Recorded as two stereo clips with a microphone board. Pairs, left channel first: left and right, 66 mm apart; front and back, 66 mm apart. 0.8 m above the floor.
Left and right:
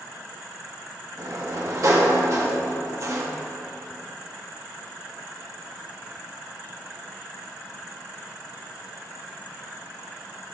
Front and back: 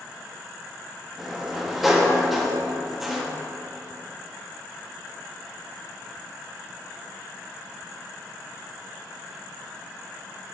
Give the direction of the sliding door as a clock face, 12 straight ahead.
3 o'clock.